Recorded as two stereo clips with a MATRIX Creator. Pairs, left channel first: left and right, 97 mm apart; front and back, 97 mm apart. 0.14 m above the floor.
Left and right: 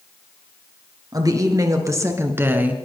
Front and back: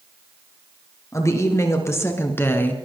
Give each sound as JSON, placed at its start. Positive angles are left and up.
{"t": 1.1, "sound": "a woman speaking", "azimuth_deg": -50, "distance_m": 3.0}